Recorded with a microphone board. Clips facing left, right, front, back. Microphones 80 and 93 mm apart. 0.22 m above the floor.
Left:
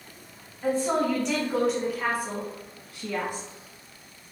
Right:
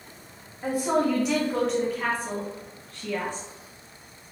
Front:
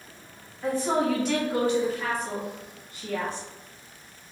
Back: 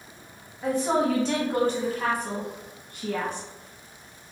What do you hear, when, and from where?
0.6 s a woman speaking: 130° right, 1.0 m; by 3.5 s 160° left, 2 m